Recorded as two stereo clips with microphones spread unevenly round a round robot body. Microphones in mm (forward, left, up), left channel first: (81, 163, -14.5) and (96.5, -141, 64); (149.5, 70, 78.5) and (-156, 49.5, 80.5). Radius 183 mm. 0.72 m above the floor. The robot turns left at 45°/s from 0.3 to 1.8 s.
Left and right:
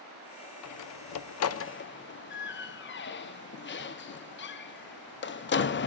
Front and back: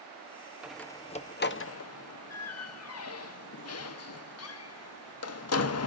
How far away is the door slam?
About 0.7 m.